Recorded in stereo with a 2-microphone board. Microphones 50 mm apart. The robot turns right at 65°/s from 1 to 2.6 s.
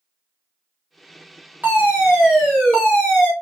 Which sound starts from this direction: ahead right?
A fire alarm, at 1.6 s.